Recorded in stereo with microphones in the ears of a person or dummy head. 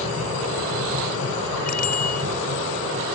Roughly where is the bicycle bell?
Left.